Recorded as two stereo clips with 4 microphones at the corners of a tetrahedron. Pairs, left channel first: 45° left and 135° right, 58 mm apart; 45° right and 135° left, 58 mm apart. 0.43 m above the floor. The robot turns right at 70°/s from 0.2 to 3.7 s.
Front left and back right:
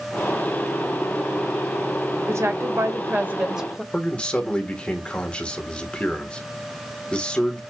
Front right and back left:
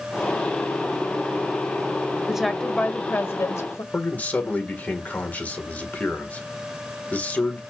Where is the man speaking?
10° right, 1.6 m.